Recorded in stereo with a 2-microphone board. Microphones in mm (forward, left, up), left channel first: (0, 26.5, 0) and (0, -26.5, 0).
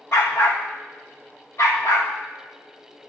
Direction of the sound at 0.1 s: 55° left (ahead or behind).